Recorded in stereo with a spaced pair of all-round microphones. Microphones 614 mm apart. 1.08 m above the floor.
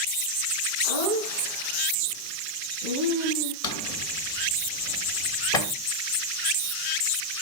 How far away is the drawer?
About 2.5 m.